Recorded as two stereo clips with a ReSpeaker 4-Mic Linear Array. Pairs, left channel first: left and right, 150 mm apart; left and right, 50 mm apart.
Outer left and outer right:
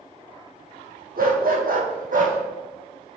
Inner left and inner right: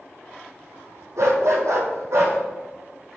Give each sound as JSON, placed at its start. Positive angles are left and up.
{"t": 1.2, "sound": "a dog barking", "side_deg": -75, "distance_m": 1.6}